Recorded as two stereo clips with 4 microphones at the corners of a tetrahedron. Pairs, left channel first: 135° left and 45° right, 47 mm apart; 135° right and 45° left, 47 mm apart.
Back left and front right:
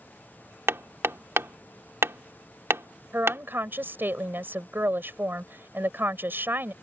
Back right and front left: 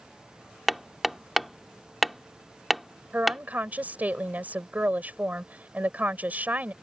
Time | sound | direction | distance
0.7 | hammering | 45° right | ?
3.1 | a woman speaking | 5° right | ?